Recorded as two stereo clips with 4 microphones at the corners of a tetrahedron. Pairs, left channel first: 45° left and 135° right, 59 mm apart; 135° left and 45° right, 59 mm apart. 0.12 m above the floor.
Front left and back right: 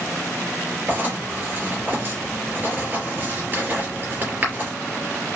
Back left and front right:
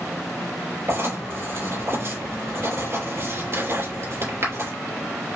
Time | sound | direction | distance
0.9 | writing | 85° right | 3 m